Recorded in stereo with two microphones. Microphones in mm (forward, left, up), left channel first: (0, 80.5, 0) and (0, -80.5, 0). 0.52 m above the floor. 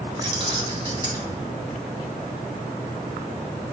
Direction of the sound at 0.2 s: 30° right (ahead or behind).